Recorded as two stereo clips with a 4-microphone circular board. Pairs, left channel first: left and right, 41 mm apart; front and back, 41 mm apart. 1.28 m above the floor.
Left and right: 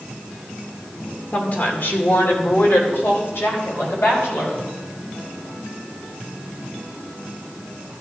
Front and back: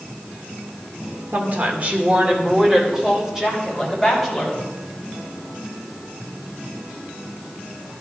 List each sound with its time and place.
1.3 s a woman speaking: 145° left, 1.8 m; by 4.6 s 85° left, 4 m